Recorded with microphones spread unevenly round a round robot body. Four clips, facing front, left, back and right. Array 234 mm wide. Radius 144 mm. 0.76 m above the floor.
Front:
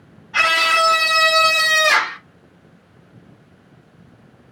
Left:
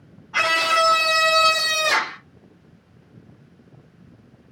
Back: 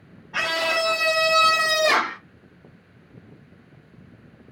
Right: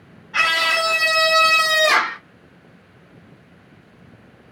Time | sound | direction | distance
0.3 | a scream | 140° left | 2.5 m